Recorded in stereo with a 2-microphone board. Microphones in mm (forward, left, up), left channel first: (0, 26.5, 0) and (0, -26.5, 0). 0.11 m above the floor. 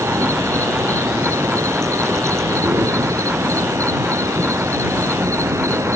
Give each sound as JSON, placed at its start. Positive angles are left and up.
{"t": 0.0, "sound": "an insect", "side_deg": -75}